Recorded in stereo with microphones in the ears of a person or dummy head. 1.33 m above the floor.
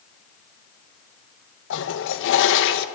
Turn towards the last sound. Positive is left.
turn(degrees=65)  # may be behind; listen again after turning